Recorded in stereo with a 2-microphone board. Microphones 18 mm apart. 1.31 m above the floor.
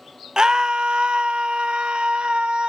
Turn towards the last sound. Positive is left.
turn(degrees=-80)